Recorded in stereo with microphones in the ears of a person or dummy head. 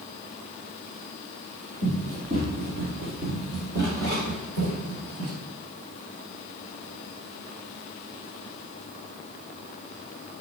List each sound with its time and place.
1.8 s running footsteps: 50° right (ahead or behind), 2.5 m